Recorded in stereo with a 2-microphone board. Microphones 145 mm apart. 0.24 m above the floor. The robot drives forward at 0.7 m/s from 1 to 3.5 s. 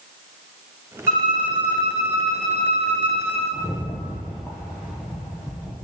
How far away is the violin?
About 1.5 m.